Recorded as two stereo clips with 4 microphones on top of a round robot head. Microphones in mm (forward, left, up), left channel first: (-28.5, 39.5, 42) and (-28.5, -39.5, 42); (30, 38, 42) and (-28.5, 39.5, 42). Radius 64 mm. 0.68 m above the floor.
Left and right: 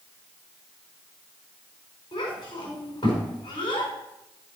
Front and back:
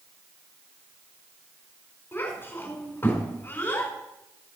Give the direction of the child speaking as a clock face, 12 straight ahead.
10 o'clock.